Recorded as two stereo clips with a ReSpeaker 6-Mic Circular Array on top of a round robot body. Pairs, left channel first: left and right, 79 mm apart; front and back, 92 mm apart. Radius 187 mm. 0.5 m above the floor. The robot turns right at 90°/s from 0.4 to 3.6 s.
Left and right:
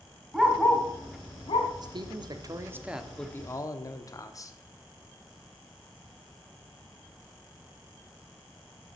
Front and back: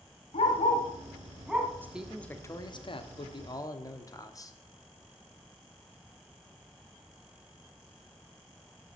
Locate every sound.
0.3 s a dog barking: 5° right, 1.8 m; by 1.7 s 115° left, 1.8 m
1.8 s a man speaking: 115° right, 1.4 m; by 4.6 s 50° left, 1.4 m